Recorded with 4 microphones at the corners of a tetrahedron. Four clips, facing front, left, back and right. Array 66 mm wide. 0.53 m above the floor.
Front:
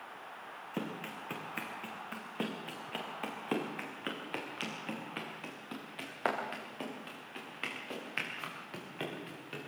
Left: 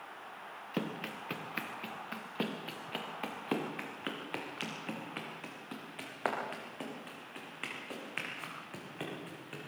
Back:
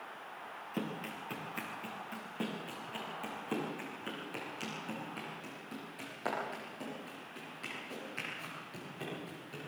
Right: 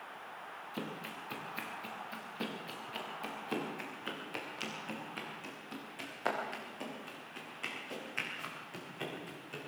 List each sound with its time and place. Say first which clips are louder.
0.7 s running footsteps: left 5 dB, even; 75° left, 3.5 m; by 9.7 s 30° left, 9.5 m